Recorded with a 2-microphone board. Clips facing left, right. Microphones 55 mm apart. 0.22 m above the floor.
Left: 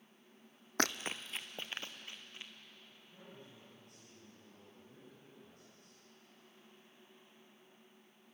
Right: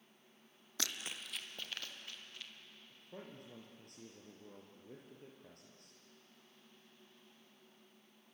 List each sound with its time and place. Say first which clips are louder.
0.8 s running footsteps: left 8 dB; 50° left (ahead or behind), 0.6 m; by 2.5 s 25° left (ahead or behind), 3 m
2.9 s a man speaking: right 7 dB; 70° right (ahead or behind), 4.5 m